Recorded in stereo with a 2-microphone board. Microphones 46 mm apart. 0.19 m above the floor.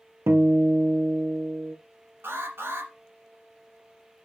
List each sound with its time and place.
0.3 s a guitar: 70° right (ahead or behind), 1.0 m
2.2 s an alarm: 50° right (ahead or behind), 2.5 m